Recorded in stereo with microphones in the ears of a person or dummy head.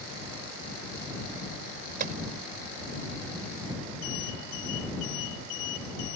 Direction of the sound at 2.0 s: 50° right (ahead or behind).